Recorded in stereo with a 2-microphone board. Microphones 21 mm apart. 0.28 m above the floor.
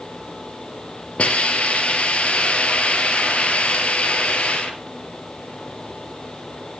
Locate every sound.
1.2 s a hiss: 80° left, 4 m